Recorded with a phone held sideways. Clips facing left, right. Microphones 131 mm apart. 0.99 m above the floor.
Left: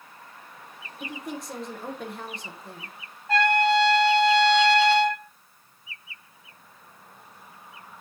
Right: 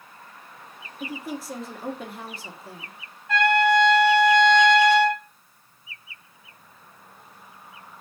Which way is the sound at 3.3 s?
35° left (ahead or behind).